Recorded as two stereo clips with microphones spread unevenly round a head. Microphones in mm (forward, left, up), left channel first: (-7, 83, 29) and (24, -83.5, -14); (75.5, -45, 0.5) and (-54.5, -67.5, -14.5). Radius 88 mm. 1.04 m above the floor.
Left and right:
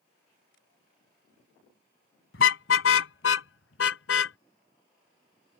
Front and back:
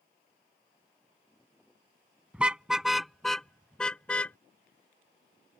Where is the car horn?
105° left; by 4.4 s 90° left.